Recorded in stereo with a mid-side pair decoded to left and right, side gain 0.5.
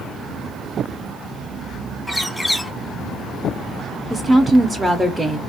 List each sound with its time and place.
2.1 s a bird: 5° left, 0.8 m
4.1 s a woman speaking: 15° right, 0.6 m